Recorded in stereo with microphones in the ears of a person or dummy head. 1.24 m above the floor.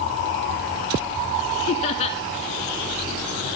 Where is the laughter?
35° left (ahead or behind), 1.6 m.